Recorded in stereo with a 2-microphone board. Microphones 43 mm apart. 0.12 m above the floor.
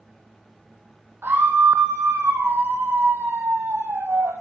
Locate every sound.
1.2 s a scream: 60° right (ahead or behind), 3.5 m